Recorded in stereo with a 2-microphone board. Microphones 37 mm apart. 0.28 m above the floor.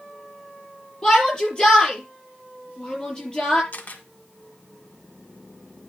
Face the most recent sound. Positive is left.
turn(degrees=45)  # may be behind; listen again after turning